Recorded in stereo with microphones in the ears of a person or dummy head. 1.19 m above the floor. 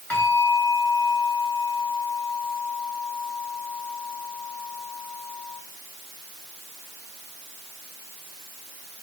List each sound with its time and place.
0.1 s a bell: 10° left (ahead or behind), 5 m